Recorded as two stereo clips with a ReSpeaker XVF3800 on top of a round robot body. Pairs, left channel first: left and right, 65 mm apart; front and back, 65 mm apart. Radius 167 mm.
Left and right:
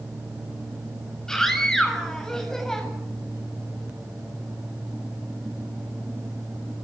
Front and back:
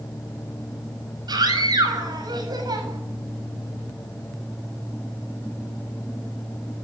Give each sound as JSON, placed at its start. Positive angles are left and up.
{"t": 1.3, "sound": "a scream", "azimuth_deg": 170, "distance_m": 8.0}